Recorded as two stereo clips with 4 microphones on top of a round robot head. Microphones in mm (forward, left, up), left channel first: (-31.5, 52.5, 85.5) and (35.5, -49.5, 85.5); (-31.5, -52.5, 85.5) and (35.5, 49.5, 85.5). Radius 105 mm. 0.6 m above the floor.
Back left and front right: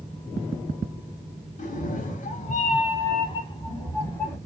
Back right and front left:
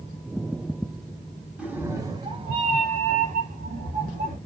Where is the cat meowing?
140° left, 0.7 m; by 4.4 s 50° left, 1.2 m.